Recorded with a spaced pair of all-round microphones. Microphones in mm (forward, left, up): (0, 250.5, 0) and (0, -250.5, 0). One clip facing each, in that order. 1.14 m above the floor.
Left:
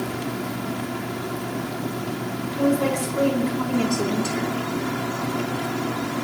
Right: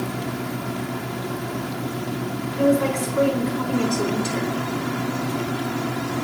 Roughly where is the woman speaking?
Centre.